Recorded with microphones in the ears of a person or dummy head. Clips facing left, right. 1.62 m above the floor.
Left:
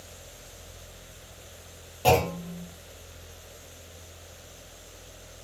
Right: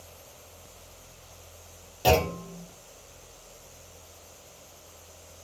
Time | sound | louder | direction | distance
2.0 | a clunk | left 1 dB | 15° right (ahead or behind) | 1.0 m